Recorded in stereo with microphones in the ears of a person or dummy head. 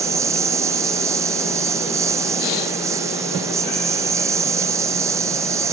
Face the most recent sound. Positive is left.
turn(degrees=-15)  # may be behind; listen again after turning